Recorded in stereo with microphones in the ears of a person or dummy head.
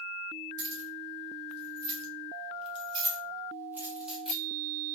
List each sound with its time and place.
0.6 s keys jangling: 70° right (ahead or behind), 1.8 m; by 5.0 s 15° left (ahead or behind), 1.5 m